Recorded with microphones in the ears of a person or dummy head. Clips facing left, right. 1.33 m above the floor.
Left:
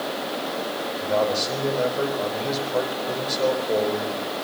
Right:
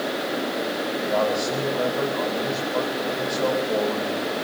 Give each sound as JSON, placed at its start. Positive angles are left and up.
{"t": 1.0, "sound": "a man speaking", "side_deg": 25, "distance_m": 4.0}